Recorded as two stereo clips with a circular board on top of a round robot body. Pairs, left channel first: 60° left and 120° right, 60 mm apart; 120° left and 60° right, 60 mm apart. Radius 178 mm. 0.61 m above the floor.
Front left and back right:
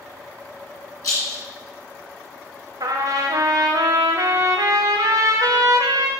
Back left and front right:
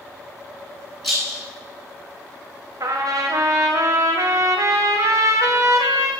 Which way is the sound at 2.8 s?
100° right.